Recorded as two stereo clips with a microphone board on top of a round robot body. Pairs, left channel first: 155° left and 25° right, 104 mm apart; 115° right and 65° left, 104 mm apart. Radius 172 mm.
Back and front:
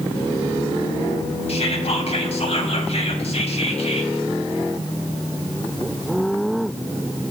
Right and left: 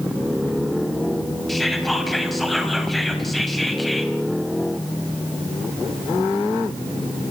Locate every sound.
1.5 s whispering: 160° left, 4.5 m